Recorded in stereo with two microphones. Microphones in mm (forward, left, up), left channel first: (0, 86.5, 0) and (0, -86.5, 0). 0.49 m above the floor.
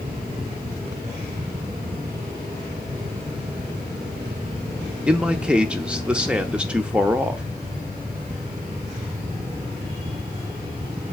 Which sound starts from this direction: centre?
A man speaking, at 5.1 s.